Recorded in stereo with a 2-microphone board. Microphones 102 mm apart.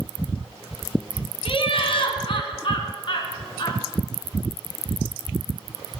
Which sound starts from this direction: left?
Laughter, at 1.4 s.